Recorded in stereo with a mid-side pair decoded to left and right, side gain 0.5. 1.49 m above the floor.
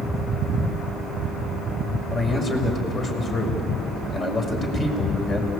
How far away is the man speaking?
About 6 m.